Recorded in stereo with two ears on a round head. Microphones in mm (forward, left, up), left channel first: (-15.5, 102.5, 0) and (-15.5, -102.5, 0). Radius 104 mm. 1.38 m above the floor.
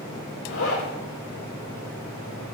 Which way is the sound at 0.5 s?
60° left (ahead or behind).